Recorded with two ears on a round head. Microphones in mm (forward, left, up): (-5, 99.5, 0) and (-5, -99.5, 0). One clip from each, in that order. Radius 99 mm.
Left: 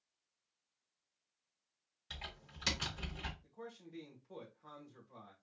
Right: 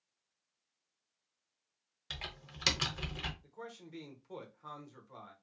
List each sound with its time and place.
2.1 s typing on a keyboard: 30° right (ahead or behind), 0.9 m
3.4 s a man speaking: 30° right (ahead or behind), 1.0 m